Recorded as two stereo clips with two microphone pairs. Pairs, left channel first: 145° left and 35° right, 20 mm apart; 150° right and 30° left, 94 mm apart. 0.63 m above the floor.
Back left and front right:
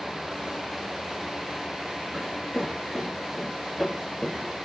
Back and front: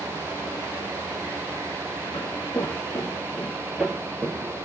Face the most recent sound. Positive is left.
turn(degrees=65)